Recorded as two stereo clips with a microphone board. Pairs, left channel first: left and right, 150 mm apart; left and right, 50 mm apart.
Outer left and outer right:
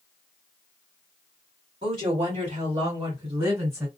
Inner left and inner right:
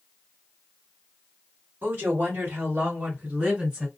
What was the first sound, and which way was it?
A woman speaking, 35° right (ahead or behind).